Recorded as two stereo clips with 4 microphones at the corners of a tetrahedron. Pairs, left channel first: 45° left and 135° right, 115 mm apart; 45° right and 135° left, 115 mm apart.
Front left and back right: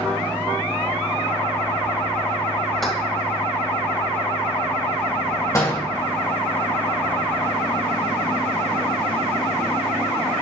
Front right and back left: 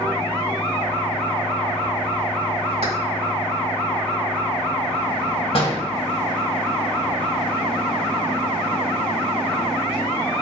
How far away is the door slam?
About 2.5 m.